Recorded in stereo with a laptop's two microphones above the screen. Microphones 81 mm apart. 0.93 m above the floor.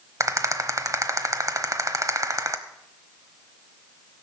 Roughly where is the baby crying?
No baby crying in this recording.